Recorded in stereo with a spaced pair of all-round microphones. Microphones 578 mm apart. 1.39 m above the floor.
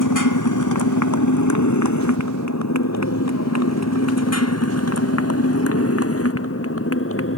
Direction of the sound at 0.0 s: 30° left (ahead or behind).